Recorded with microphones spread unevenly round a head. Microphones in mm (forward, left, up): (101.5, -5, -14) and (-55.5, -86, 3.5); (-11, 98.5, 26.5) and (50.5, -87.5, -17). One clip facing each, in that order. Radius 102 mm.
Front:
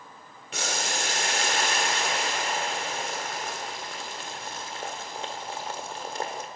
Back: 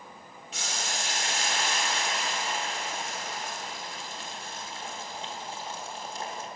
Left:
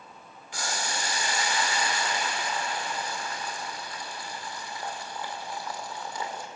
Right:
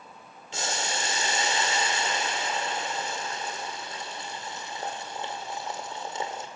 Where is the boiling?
Straight ahead, 1.8 m.